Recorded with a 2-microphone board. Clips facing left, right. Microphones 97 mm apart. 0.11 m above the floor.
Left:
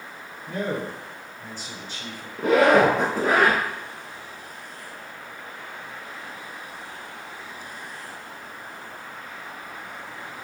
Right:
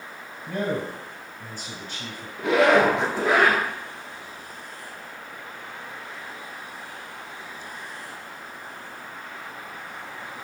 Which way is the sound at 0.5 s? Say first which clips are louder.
Right 1 dB; 35° right (ahead or behind).